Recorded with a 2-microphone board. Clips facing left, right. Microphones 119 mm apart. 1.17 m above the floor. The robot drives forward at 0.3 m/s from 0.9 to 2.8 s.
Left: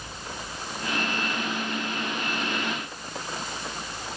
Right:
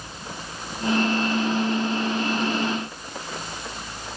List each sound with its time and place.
Only background noise.